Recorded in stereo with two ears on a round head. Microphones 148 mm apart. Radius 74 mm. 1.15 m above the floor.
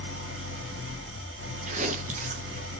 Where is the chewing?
45° right (ahead or behind), 0.5 m.